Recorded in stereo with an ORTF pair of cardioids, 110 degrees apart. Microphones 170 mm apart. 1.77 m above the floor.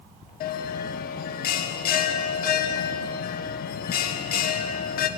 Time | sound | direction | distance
0.4 | a bell | 60° left | 1.9 m